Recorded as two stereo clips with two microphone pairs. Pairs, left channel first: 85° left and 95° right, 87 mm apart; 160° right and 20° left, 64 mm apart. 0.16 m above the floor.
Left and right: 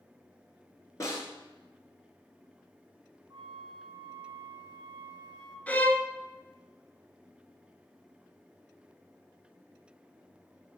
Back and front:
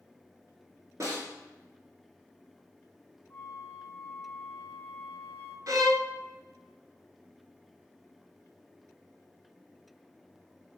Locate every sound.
1.0 s a snare drum: 40° left, 2.5 m
3.3 s a flute: 105° right, 0.8 m
5.7 s a violin: 20° left, 0.6 m